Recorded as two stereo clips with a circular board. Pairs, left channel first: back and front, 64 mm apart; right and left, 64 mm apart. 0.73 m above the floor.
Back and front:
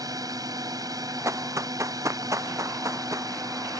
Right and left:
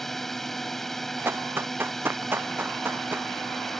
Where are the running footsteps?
40° left; by 3.3 s 35° left.